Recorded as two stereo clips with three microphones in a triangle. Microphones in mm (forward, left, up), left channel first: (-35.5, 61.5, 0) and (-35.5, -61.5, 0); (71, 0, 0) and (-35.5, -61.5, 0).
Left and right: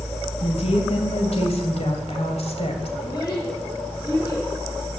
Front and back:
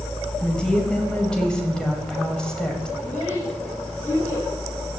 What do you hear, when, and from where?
0.4 s a woman speaking: 110° left, 2.5 m
3.0 s a child speaking: 40° left, 9 m